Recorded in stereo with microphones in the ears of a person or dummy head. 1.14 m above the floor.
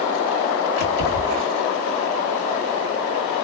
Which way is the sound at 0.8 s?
55° left (ahead or behind).